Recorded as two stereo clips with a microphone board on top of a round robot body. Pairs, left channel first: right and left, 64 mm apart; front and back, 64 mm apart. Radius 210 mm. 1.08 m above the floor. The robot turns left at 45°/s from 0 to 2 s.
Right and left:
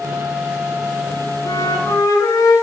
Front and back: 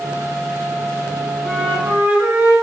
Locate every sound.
1.4 s a flute: 95° right, 9 m; by 2.5 s 115° right, 9 m